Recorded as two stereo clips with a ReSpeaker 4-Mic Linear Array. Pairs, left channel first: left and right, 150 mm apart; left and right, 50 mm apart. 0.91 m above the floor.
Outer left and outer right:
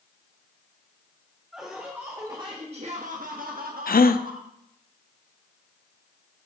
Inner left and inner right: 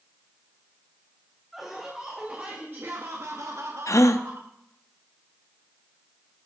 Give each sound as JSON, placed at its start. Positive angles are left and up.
{"t": 1.5, "sound": "laughter", "side_deg": -5, "distance_m": 1.8}
{"t": 3.9, "sound": "a gasp", "side_deg": 75, "distance_m": 0.5}